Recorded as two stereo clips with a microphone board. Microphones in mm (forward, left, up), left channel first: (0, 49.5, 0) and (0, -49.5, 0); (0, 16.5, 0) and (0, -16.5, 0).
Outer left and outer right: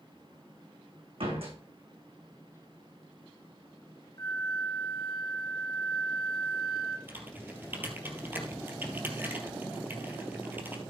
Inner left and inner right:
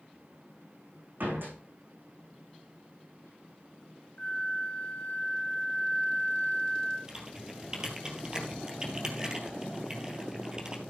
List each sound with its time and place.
1.2 s a door slam: 70° right (ahead or behind), 4.5 m
4.2 s a flute: 45° left (ahead or behind), 2 m
7.1 s typing on a keyboard: 20° right (ahead or behind), 2.5 m